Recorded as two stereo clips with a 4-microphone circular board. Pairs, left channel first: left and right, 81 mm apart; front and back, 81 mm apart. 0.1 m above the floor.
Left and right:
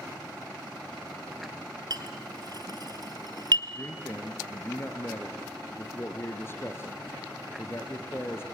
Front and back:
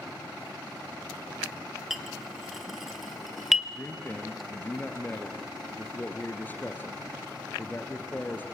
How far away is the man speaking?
About 2.0 m.